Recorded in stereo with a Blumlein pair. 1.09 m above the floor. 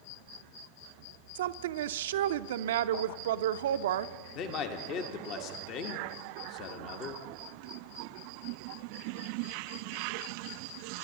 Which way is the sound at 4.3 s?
35° left.